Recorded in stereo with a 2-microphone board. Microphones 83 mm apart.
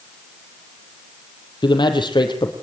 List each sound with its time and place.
1.6 s a man speaking: 65° left (ahead or behind), 4 m